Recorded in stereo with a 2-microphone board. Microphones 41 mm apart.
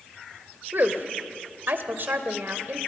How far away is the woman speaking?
About 1.6 m.